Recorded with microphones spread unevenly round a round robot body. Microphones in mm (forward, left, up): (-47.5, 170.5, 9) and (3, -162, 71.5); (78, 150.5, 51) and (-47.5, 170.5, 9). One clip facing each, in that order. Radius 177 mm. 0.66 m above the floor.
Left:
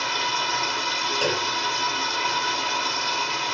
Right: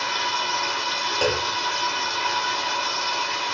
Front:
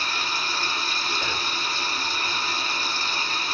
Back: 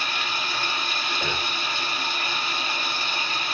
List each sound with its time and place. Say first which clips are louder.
0.0 s running water: even, even; 35° left, 1.9 m
1.2 s a clunk: right 3 dB, back 1 dB; 120° right, 1.7 m